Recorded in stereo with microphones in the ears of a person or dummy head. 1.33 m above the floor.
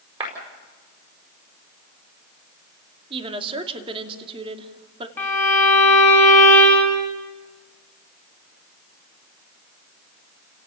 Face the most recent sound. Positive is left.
turn(degrees=15)  # may be behind; listen again after turning